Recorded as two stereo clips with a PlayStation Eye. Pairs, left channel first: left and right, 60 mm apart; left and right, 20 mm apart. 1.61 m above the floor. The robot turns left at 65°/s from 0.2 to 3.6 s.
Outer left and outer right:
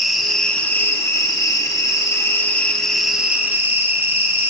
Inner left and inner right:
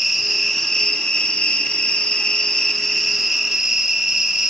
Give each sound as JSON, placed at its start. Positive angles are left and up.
{"t": 0.0, "sound": "an insect", "azimuth_deg": -175, "distance_m": 1.0}